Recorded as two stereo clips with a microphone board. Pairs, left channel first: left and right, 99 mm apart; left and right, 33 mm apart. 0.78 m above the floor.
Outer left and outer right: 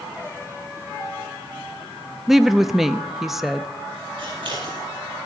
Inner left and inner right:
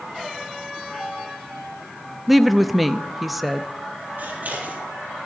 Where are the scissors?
55° right (ahead or behind), 7 m.